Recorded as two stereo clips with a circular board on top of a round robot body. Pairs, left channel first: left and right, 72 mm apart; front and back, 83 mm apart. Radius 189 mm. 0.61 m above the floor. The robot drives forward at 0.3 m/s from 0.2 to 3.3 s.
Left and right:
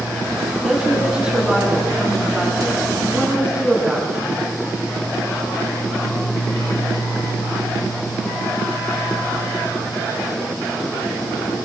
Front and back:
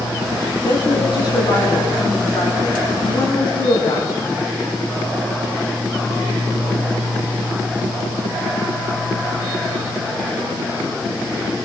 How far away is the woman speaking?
About 8.5 m.